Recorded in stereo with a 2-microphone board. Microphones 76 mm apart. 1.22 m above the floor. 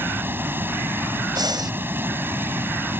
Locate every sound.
0.0 s running water: 30° right (ahead or behind)
1.4 s breathing: 75° right (ahead or behind)